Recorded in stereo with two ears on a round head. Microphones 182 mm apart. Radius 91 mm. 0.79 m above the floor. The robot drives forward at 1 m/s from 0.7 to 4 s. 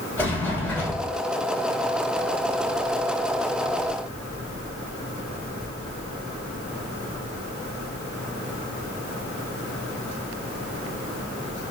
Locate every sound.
0.2 s a sliding door: 10° left (ahead or behind), 4.5 m